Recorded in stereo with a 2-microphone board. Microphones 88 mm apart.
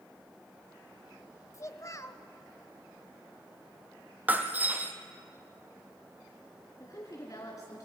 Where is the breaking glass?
20° right (ahead or behind), 1.3 m.